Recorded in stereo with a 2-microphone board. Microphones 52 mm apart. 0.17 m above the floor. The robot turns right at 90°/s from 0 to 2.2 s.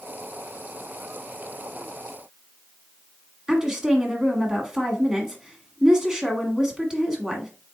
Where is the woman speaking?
10° right (ahead or behind), 1.3 m.